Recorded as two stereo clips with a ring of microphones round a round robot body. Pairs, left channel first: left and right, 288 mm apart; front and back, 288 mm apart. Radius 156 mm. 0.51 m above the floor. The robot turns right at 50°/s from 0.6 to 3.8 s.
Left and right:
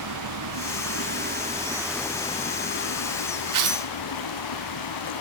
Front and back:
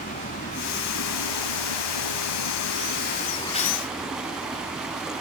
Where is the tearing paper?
75° right, 2 m; by 3.9 s 60° right, 2 m.